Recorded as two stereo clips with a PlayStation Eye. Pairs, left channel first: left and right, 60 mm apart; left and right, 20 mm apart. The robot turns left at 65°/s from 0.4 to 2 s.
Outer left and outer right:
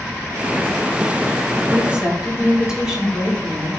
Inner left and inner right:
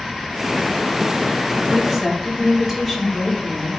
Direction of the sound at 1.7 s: 35° right (ahead or behind).